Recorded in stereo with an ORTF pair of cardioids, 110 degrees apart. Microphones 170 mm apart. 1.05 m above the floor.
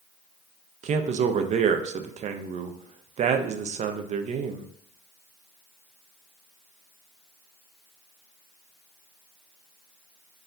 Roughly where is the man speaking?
Ahead right.